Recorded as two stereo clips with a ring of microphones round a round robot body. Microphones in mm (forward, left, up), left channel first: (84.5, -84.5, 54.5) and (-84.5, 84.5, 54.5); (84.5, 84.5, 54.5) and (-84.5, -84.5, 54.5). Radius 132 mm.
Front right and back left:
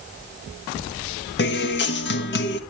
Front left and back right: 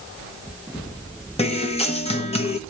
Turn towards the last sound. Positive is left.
turn(degrees=-15)